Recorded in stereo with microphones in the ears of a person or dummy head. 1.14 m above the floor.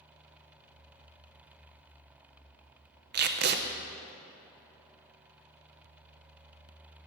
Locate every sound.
3.1 s tape being pulled: 50° right (ahead or behind), 0.6 m